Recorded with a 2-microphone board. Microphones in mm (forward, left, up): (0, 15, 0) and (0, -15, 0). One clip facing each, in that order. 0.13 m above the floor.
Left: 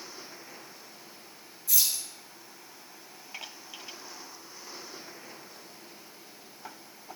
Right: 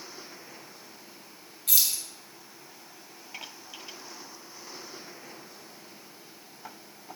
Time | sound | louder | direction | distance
1.7 | keys jangling | right 1 dB | 70° right (ahead or behind) | 2.5 m